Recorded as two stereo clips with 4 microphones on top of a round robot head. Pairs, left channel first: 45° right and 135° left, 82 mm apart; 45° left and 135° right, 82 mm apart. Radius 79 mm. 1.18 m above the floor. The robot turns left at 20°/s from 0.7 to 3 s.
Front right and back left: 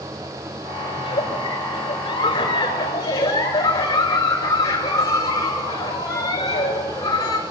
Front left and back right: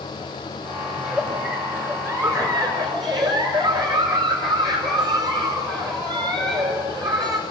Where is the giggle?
55° right, 7 m; by 7.4 s 95° right, 7 m.